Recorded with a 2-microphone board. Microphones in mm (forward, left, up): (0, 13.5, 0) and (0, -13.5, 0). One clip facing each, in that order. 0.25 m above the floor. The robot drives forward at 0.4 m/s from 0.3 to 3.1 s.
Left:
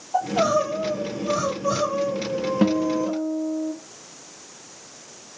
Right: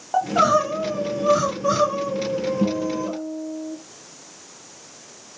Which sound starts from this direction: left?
A guitar, at 2.6 s.